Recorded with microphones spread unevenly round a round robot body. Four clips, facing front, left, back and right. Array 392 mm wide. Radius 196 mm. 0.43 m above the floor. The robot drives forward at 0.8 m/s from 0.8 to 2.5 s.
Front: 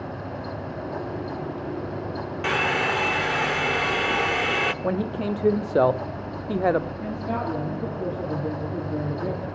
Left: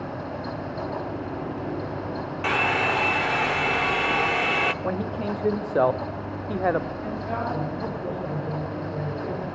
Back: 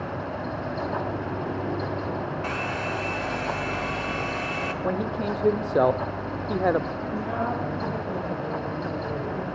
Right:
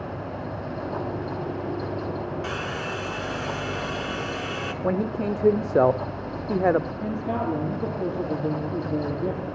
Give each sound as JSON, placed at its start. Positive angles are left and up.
{"t": 2.4, "sound": "a hair dryer", "azimuth_deg": 35, "distance_m": 0.8}
{"t": 4.8, "sound": "a man speaking", "azimuth_deg": -80, "distance_m": 0.9}
{"t": 7.0, "sound": "a man speaking", "azimuth_deg": -60, "distance_m": 9.0}